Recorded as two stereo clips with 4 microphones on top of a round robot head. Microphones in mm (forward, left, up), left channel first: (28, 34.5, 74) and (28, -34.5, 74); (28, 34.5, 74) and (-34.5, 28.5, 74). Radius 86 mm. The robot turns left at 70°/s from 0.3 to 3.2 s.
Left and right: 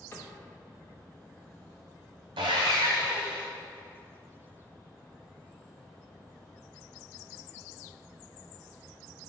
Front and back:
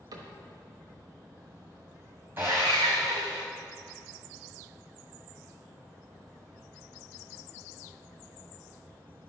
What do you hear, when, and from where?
0.1 s a cupboard door: 155° left, 1.1 m
2.4 s sawing: 110° right, 0.9 m; by 3.5 s 165° right, 0.9 m